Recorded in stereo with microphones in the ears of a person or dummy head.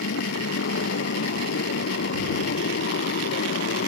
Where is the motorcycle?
65° left (ahead or behind); by 3.9 s 55° left (ahead or behind).